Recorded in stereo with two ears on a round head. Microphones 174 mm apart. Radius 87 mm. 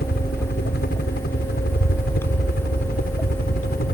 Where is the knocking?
I don't hear knocking.